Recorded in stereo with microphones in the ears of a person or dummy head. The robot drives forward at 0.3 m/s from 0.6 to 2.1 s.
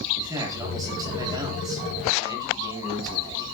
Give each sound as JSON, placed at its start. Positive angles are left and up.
{"t": 0.2, "sound": "a man speaking", "side_deg": -25, "distance_m": 8.5}